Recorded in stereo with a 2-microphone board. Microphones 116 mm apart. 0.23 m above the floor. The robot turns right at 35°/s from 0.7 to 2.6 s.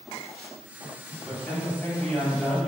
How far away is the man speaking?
About 1.7 m.